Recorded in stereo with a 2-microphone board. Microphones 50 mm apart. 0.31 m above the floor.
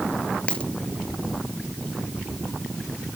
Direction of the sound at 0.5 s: 20° left (ahead or behind).